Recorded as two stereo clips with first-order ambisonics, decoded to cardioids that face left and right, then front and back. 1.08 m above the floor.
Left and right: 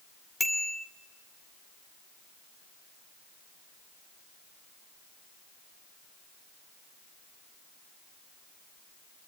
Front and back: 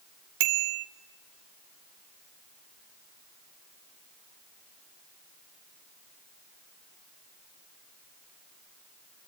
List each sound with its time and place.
0.4 s a bicycle bell: 175° left, 2.5 m